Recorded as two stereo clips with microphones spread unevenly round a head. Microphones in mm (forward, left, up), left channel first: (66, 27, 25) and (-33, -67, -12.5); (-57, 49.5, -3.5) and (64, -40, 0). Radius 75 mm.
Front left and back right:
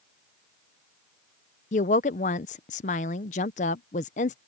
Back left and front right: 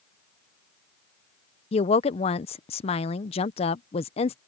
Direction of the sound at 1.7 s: 90° left.